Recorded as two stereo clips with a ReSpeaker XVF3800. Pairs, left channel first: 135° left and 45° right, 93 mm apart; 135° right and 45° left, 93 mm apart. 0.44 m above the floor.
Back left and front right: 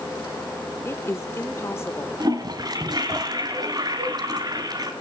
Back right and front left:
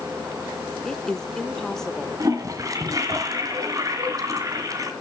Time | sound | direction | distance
0.8 | a woman speaking | 145° left | 1.1 m
2.2 | a toilet flushing | 5° right | 2 m